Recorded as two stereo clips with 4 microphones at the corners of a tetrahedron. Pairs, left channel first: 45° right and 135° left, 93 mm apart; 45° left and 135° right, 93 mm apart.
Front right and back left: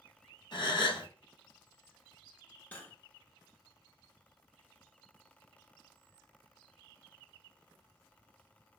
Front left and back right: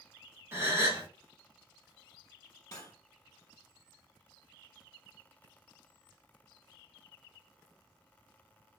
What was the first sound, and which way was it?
A gasp, 75° right.